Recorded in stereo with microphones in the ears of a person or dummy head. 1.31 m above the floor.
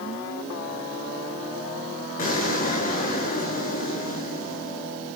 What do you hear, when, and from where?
2.2 s an explosion: 55° left (ahead or behind), 7.5 m